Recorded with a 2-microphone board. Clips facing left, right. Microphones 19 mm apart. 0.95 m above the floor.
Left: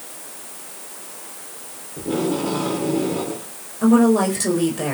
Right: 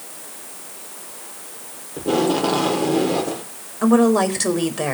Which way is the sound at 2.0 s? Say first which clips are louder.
Right 4 dB; 60° right (ahead or behind).